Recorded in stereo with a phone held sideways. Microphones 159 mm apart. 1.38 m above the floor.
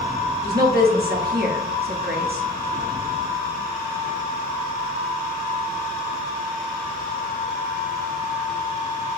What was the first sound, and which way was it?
A woman speaking, 80° right.